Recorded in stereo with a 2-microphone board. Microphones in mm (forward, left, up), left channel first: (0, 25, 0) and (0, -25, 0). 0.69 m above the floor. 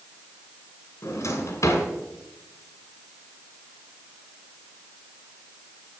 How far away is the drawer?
About 1.7 m.